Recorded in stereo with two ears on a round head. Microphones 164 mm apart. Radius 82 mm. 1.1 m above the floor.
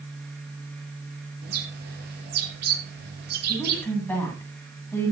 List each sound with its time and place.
1.4 s a bird: 60° right (ahead or behind), 6.5 m
3.5 s a woman speaking: 10° left (ahead or behind), 8 m